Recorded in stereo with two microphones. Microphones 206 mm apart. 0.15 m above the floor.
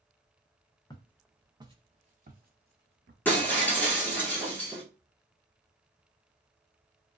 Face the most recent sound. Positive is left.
turn(degrees=10)  # may be behind; listen again after turning